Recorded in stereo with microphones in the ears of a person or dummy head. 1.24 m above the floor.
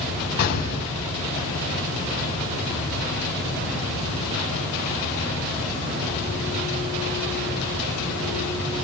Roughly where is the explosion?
Left.